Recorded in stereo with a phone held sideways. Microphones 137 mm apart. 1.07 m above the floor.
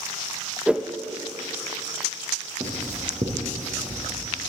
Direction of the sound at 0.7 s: 10° right (ahead or behind).